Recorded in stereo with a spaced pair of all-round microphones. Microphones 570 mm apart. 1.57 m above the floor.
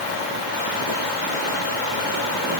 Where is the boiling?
No boiling in this recording.